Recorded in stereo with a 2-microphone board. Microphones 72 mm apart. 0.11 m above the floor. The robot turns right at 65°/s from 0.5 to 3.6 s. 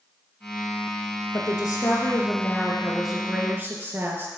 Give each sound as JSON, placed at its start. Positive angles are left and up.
{"t": 1.3, "sound": "a woman speaking", "azimuth_deg": 75, "distance_m": 2.0}